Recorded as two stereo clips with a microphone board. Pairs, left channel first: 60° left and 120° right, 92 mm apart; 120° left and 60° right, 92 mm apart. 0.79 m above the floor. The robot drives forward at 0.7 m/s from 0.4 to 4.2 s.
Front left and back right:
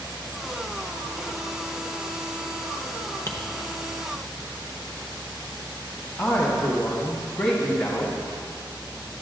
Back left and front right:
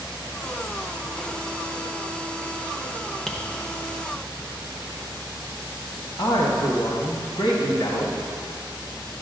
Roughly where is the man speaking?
Behind left.